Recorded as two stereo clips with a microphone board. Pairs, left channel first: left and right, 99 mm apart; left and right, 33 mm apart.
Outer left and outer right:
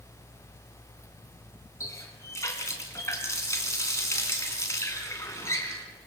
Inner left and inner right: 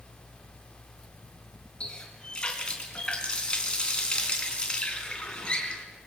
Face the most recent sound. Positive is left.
turn(degrees=30)  # may be behind; listen again after turning